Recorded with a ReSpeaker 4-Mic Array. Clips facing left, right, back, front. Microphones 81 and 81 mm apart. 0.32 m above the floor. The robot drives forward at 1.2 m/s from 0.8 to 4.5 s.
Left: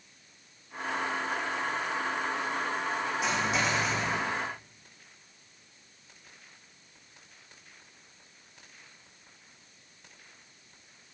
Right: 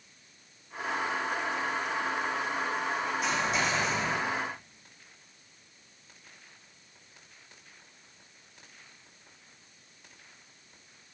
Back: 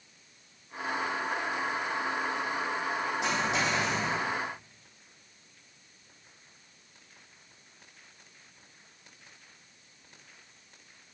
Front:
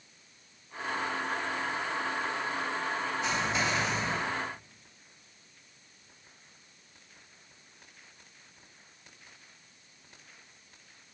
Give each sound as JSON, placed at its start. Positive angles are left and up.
{"t": 3.2, "sound": "a dropped coin", "azimuth_deg": 175, "distance_m": 6.5}